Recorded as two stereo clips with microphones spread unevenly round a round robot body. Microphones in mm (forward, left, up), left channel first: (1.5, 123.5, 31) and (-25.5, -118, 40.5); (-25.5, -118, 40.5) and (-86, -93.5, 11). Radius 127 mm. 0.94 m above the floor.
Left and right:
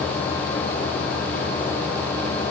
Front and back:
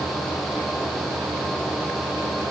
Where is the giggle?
I don't hear a giggle.